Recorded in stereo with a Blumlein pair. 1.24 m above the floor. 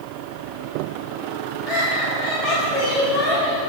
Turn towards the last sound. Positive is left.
turn(degrees=10)